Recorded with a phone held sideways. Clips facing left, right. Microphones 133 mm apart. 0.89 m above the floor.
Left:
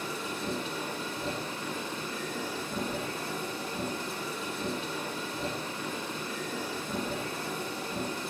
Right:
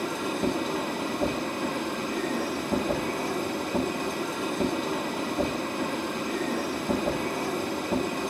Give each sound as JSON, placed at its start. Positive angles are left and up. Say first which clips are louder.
{"t": 0.0, "sound": "a machine running", "louder": "right 8 dB", "side_deg": -65, "distance_m": 1.6}